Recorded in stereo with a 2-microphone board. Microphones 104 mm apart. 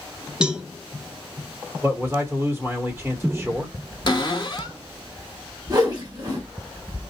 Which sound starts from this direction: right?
A whoosh, at 5.7 s.